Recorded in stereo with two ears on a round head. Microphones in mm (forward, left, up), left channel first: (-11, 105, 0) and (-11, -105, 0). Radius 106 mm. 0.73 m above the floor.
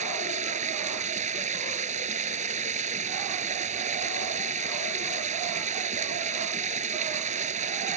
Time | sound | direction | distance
0.0 | running water | 30° right (ahead or behind) | ?